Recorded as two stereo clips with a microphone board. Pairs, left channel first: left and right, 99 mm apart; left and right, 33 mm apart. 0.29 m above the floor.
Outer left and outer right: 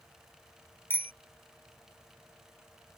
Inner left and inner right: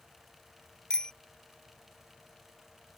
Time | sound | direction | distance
0.9 | a bicycle bell | 20° left (ahead or behind) | ?